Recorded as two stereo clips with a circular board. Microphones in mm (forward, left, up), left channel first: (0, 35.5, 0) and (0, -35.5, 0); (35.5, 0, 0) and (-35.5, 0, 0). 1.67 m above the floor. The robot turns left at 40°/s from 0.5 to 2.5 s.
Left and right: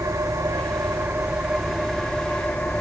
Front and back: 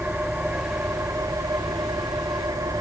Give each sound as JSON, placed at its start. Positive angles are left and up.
{"t": 0.0, "sound": "an engine running", "azimuth_deg": -120, "distance_m": 2.5}